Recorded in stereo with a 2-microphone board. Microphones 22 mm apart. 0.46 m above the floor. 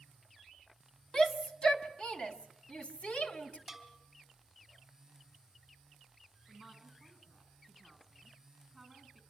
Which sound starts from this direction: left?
A shout, at 1.1 s.